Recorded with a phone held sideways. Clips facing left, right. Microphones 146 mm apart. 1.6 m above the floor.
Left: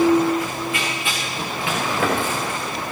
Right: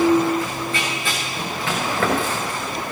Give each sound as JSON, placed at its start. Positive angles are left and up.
{"t": 0.4, "sound": "running footsteps", "side_deg": 5, "distance_m": 5.5}